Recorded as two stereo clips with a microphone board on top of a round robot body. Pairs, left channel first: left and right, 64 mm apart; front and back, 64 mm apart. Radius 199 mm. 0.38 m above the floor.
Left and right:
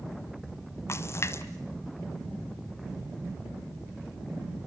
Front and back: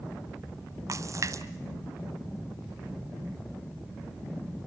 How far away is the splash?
About 0.9 m.